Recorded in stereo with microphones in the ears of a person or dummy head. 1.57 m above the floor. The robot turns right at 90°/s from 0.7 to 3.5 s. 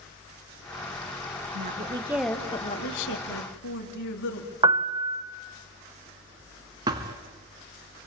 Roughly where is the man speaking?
Left.